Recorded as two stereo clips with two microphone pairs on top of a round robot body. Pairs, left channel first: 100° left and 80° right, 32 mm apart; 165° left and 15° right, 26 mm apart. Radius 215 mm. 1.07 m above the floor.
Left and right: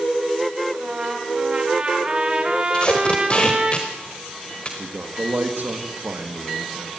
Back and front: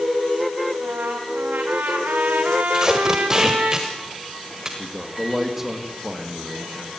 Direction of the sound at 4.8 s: 95° right.